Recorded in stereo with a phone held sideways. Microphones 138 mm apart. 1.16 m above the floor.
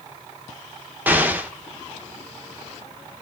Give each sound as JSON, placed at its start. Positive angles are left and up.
{"t": 1.1, "sound": "an explosion", "side_deg": -15, "distance_m": 0.6}